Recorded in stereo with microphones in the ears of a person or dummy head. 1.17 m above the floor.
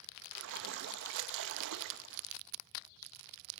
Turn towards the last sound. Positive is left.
turn(degrees=-65)  # may be behind; listen again after turning